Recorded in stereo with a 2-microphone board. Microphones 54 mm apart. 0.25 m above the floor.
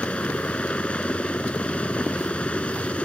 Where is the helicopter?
20° left (ahead or behind).